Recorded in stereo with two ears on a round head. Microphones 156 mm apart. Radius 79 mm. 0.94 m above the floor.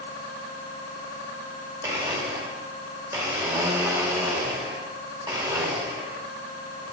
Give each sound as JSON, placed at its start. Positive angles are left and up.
{"t": 1.8, "sound": "a blender", "side_deg": -20, "distance_m": 1.7}